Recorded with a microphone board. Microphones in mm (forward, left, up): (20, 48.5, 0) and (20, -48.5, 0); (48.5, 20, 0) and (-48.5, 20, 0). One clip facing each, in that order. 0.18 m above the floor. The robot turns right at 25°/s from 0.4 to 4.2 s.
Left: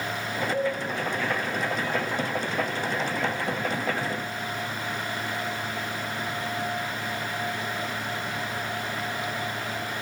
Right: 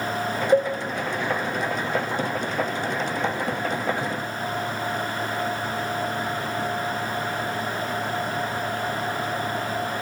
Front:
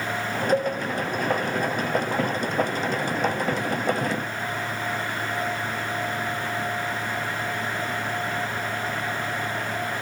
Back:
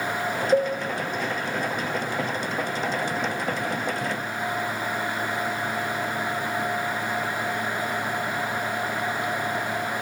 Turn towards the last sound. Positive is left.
turn(degrees=-5)